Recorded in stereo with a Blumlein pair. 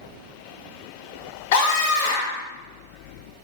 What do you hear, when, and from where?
1.5 s a scream: 50° left, 1.0 m